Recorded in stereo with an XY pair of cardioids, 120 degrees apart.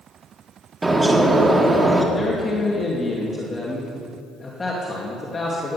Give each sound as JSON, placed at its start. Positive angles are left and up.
{"t": 0.8, "sound": "a bird", "azimuth_deg": -15, "distance_m": 1.9}
{"t": 2.1, "sound": "a man speaking", "azimuth_deg": 25, "distance_m": 2.5}